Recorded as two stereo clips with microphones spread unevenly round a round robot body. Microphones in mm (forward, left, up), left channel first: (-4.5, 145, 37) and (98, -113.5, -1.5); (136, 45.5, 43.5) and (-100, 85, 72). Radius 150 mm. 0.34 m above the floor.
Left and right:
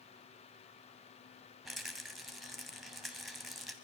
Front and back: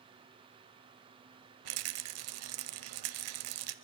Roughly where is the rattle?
Behind right.